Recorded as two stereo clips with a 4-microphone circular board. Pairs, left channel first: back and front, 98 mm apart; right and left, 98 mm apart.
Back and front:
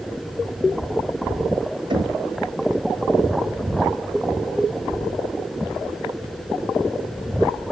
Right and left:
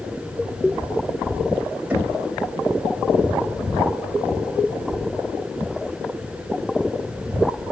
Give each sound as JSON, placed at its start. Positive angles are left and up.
{"t": 1.9, "sound": "knocking", "azimuth_deg": 20, "distance_m": 1.1}